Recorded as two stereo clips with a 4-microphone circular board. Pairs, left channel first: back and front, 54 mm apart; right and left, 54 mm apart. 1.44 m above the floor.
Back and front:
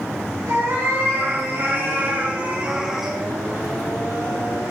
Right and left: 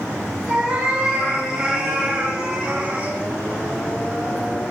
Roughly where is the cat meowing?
Ahead.